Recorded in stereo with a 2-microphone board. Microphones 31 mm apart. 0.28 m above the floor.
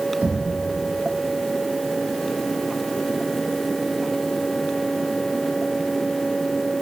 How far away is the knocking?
About 8.5 m.